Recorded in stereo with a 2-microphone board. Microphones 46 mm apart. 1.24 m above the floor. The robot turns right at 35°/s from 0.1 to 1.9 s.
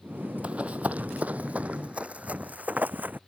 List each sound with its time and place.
0.4 s running footsteps: 25° right (ahead or behind); by 3.2 s 40° right (ahead or behind)